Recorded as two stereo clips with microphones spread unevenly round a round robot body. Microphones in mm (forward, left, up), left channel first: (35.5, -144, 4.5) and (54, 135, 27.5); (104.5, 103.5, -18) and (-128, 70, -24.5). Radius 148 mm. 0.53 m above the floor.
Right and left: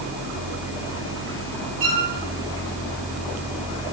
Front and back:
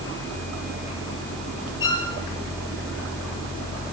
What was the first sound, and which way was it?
A violin, 40° left.